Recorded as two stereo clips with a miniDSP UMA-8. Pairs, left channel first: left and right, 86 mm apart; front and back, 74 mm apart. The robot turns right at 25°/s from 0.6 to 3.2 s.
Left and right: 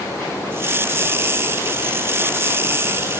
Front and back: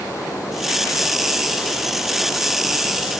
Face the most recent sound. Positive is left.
No sound to turn to.